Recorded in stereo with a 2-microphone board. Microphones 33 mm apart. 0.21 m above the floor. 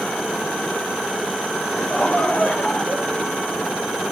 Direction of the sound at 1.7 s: 50° left (ahead or behind).